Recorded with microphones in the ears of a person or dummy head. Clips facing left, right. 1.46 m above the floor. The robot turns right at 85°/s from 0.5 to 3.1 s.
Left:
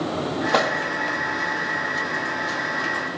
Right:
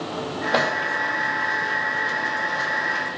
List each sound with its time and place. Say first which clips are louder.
0.5 s a microwave: even; 5° right (ahead or behind), 1.6 m; by 0.7 s 20° right (ahead or behind), 1.6 m